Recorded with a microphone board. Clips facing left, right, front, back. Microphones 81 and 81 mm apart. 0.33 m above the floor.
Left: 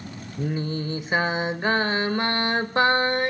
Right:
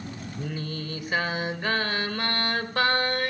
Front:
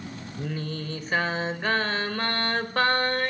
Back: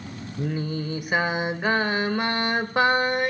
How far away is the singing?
About 0.8 m.